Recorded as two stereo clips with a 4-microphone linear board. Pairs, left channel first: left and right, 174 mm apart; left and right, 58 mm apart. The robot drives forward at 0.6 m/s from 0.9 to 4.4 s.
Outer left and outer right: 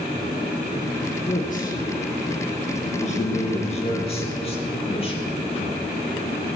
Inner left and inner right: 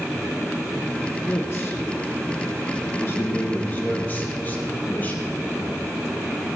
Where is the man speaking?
50° left (ahead or behind), 2.0 m; by 6.0 s 35° left (ahead or behind), 2.5 m.